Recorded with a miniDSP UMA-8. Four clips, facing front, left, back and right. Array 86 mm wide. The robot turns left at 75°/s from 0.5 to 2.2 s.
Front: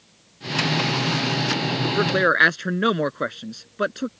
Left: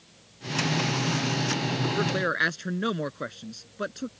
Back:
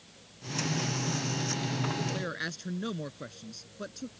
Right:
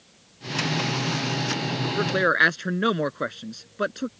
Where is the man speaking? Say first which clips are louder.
Right 6 dB, front 14 dB; straight ahead; by 4.1 s 25° right.